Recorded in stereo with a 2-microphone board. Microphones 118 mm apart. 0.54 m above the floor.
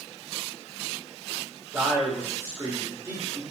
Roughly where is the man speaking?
Right.